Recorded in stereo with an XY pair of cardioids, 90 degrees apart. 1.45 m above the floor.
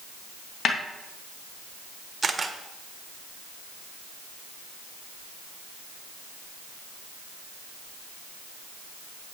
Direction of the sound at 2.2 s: 30° right.